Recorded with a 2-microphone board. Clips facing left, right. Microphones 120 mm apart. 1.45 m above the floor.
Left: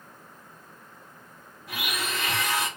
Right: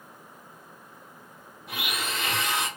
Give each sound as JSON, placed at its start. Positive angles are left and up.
{"t": 1.7, "sound": "a blender", "side_deg": -25, "distance_m": 2.0}